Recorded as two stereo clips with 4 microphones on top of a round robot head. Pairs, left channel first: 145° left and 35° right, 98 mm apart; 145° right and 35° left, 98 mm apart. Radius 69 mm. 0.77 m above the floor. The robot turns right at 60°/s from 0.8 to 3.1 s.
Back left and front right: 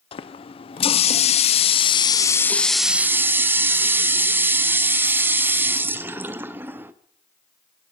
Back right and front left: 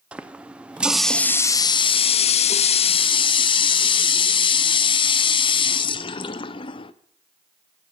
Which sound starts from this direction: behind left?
A running tap, at 0.1 s.